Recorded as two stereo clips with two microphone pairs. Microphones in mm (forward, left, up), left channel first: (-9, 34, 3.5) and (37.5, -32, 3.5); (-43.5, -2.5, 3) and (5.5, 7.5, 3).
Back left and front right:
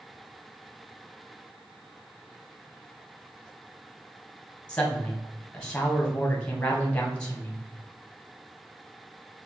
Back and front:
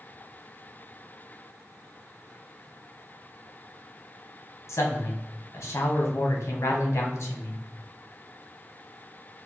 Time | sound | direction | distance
4.7 | a man speaking | 160° right | 1.4 m